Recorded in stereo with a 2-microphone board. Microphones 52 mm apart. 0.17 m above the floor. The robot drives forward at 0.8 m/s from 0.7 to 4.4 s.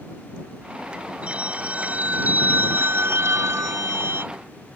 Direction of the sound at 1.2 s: 25° right (ahead or behind).